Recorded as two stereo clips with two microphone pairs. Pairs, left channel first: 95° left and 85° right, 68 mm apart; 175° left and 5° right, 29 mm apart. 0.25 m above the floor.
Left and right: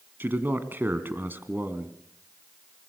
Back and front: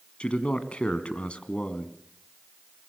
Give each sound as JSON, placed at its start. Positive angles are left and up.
{"t": 0.2, "sound": "a man speaking", "azimuth_deg": -140, "distance_m": 1.8}